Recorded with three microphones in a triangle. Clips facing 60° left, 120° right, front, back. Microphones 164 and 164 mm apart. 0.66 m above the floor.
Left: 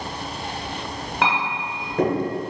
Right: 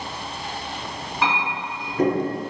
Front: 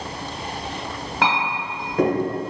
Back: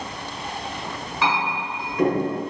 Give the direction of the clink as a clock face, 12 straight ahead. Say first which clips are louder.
Left 1 dB, front 1 dB; 11 o'clock.